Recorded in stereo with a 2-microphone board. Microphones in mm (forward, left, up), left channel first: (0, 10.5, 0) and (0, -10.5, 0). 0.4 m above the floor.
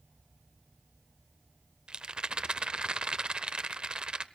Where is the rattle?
45° right (ahead or behind), 0.6 m.